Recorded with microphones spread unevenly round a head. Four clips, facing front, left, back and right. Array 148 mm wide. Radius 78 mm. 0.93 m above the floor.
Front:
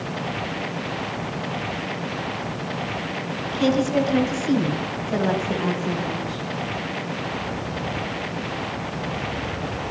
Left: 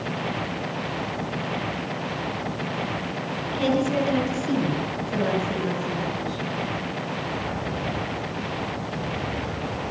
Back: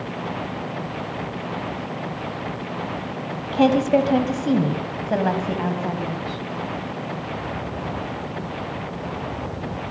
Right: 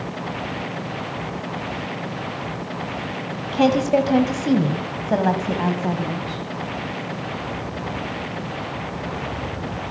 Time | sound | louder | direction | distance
3.5 | a woman speaking | right 6 dB, back 3 dB | 135° right | 6 m